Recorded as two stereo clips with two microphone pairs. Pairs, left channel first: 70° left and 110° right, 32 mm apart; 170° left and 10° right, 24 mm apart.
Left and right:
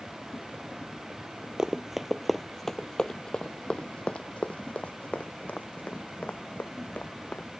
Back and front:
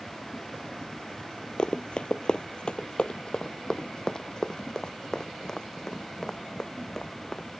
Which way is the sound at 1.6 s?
170° right.